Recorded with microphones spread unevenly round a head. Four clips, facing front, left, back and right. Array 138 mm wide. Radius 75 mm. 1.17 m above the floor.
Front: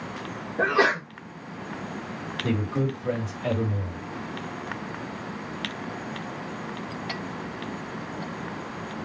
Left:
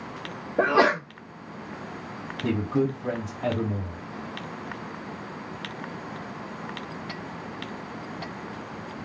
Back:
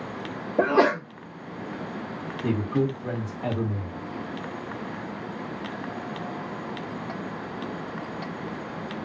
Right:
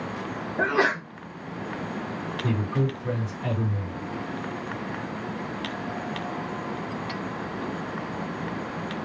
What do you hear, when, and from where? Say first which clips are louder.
0.6 s a sneeze: left 4 dB, back 2 dB; 140° left, 1.3 m
2.4 s a man speaking: left 3 dB, back 2 dB; 110° left, 2.5 m